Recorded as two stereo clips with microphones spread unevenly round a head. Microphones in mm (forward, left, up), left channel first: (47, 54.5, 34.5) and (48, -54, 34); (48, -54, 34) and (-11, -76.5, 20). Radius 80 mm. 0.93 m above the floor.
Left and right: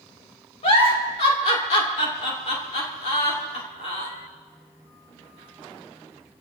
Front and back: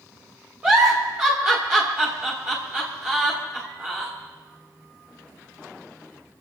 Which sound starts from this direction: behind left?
A giggle, at 0.6 s.